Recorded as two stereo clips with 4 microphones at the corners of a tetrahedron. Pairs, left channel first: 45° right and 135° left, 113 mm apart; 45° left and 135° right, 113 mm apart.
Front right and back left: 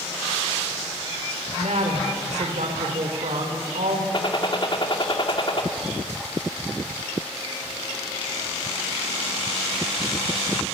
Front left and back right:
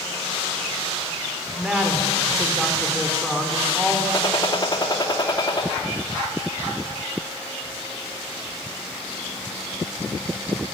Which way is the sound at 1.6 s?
140° left.